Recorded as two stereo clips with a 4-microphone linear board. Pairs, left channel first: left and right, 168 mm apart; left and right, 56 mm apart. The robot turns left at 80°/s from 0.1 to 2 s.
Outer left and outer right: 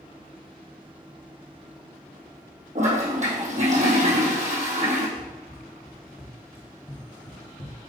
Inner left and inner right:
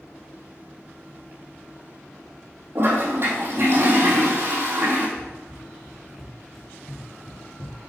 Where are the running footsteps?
25° right (ahead or behind), 2.5 m; by 7.8 s 55° left (ahead or behind), 2 m.